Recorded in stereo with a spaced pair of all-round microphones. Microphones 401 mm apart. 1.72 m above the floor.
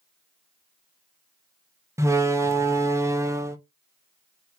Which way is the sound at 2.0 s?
10° right (ahead or behind).